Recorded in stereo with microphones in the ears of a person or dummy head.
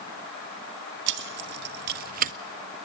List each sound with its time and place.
1.1 s keys jangling: 65° right (ahead or behind), 1.5 m; by 2.3 s 45° right (ahead or behind), 0.9 m